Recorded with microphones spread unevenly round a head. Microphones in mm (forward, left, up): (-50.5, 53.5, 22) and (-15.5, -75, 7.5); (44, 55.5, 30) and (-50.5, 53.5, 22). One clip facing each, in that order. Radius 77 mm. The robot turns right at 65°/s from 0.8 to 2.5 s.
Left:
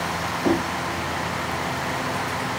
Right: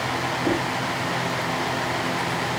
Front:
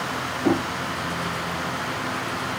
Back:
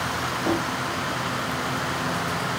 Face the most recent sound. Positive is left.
turn(degrees=165)